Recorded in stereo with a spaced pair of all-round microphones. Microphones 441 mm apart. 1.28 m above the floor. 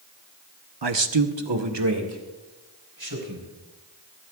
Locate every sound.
0.8 s a man speaking: 60° right (ahead or behind), 0.9 m; by 3.5 s 50° right (ahead or behind), 4 m